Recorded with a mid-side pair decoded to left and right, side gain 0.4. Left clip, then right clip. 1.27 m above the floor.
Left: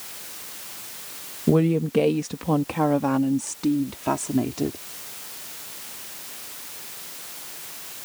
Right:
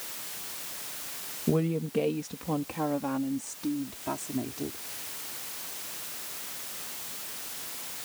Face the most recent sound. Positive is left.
turn(degrees=65)